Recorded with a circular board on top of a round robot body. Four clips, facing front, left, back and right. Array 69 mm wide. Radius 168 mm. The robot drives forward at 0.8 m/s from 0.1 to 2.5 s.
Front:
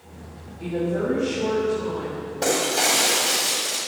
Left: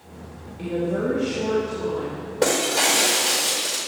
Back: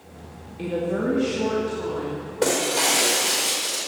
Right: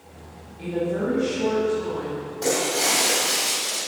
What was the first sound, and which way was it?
A woman speaking, 160° left.